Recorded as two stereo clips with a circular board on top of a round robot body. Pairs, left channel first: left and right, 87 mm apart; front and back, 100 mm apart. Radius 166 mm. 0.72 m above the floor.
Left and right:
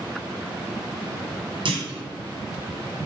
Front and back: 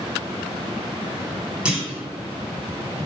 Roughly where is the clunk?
Right.